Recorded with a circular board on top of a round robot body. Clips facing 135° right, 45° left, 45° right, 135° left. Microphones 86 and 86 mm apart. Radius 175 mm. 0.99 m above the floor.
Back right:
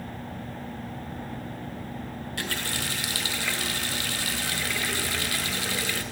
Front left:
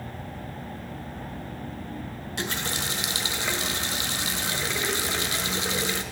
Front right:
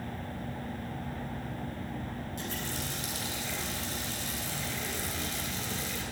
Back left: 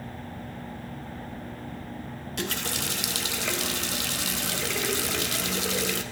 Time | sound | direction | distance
2.4 | a running tap | 115° left | 0.8 m